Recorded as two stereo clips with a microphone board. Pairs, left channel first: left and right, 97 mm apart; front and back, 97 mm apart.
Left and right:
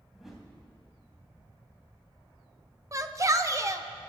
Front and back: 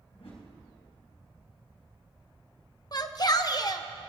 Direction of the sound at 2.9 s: 40° right.